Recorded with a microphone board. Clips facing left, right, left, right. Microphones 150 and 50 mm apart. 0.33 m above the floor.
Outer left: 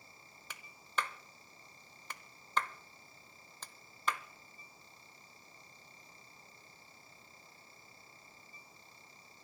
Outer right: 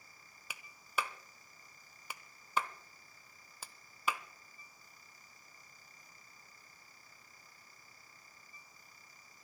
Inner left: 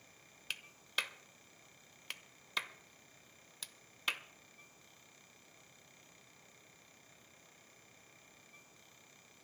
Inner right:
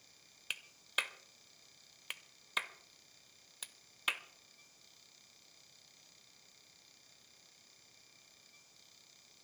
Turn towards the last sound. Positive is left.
turn(degrees=-10)  # may be behind; listen again after turning